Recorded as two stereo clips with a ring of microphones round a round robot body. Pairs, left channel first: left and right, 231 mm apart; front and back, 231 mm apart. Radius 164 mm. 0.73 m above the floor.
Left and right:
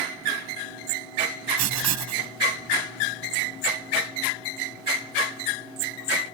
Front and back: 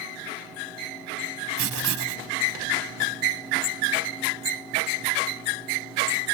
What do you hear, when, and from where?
1.6 s writing: 130° right